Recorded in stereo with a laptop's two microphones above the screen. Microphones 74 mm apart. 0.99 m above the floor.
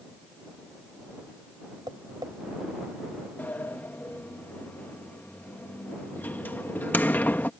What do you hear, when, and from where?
1.9 s tapping: 70° right (ahead or behind)
3.4 s a sliding door: 25° left (ahead or behind)